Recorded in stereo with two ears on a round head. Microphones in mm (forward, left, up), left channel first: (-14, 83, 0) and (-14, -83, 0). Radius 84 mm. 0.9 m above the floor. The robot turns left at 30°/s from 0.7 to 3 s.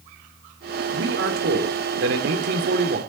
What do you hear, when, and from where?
0.9 s a man speaking: 65° right, 2.5 m; by 3.0 s 125° right, 2.5 m